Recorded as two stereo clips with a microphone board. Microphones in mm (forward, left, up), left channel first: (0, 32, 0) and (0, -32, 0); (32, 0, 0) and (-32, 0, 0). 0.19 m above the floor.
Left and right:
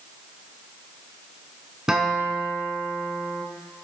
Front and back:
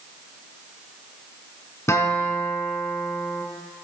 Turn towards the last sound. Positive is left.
turn(degrees=-15)